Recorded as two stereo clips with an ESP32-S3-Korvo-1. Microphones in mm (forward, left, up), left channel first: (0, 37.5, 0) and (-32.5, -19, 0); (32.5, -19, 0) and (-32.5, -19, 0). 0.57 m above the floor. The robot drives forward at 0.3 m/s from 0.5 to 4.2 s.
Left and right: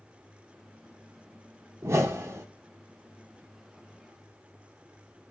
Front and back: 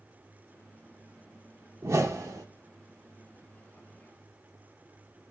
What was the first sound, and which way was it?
A whoosh, 150° right.